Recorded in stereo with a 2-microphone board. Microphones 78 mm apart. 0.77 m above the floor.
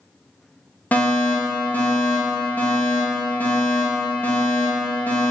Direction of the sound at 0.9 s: 20° left (ahead or behind).